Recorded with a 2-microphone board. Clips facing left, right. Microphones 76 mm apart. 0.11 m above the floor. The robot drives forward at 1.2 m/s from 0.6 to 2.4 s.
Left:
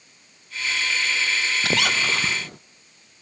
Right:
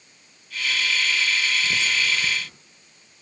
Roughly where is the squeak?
Left.